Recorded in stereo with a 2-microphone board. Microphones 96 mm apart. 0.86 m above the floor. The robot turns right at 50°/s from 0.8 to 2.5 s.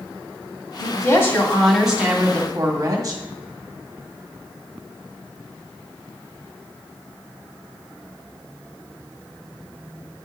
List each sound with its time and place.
0.8 s a woman speaking: 130° left, 2 m; by 3.2 s 145° right, 2 m